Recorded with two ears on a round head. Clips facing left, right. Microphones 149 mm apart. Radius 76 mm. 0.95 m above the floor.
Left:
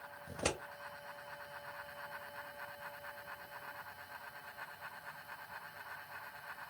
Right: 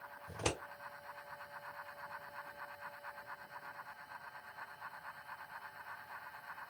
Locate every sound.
0.3 s scissors: 70° left (ahead or behind), 1.7 m